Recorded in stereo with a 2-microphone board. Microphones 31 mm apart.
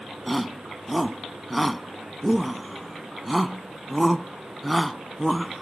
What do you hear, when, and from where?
0.3 s a shout: centre (ahead or behind)